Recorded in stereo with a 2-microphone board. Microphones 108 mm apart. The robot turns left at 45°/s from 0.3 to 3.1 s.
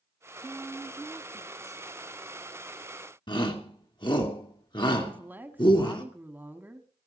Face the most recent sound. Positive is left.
turn(degrees=-20)  # may be behind; listen again after turning